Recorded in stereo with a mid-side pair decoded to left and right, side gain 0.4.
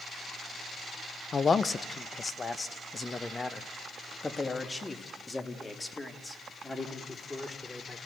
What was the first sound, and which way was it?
A man speaking, 45° left.